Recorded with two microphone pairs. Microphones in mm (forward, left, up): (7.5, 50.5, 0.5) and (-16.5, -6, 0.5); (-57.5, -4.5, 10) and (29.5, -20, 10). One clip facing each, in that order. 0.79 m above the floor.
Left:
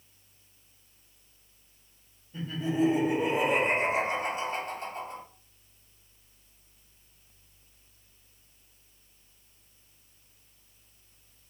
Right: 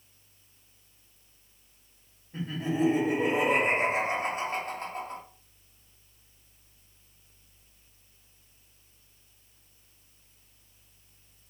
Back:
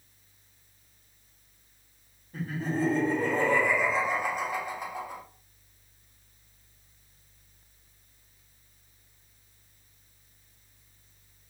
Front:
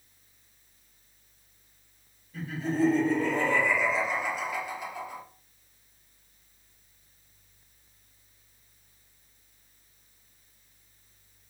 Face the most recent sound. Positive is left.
turn(degrees=-145)